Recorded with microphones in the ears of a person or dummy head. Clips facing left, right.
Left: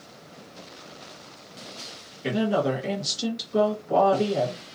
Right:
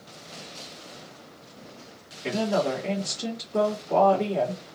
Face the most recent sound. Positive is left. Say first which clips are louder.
# left 1 dB
turn(degrees=40)  # may be behind; listen again after turning